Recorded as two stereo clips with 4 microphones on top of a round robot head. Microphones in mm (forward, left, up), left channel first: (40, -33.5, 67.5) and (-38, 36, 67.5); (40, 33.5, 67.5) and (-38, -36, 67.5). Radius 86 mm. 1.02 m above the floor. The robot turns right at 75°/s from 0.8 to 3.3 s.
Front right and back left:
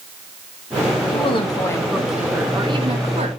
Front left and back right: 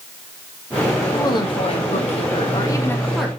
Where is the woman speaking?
20° right, 1.7 m; by 3.3 s 140° left, 1.7 m.